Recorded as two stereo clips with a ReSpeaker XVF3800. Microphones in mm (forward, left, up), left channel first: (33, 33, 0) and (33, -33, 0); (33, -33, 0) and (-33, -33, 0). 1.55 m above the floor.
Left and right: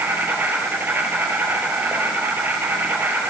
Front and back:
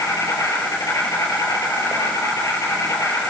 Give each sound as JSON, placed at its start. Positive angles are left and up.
{"t": 0.0, "sound": "an insect", "azimuth_deg": -30, "distance_m": 5.5}